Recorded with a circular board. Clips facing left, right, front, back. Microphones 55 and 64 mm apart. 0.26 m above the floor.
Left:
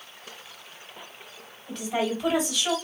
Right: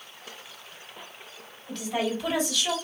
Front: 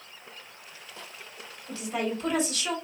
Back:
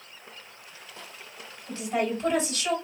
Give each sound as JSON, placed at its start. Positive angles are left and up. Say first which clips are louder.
{"t": 1.7, "sound": "a woman speaking", "louder": "left 1 dB, back 3 dB", "azimuth_deg": 160, "distance_m": 1.9}